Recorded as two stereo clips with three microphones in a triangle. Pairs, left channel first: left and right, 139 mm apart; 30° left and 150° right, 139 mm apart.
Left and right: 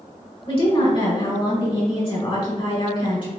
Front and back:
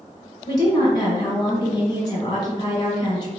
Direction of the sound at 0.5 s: 70° left.